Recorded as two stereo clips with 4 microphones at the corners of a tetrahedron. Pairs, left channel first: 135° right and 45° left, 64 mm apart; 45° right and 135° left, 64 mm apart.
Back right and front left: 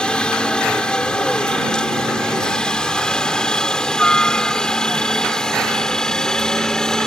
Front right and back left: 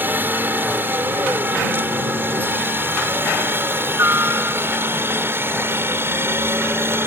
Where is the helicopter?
160° left; by 7.1 s 150° left.